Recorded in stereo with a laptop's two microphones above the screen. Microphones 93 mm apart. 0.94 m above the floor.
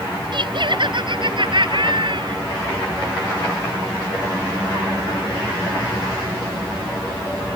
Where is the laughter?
55° right (ahead or behind); by 2.4 s 60° right (ahead or behind).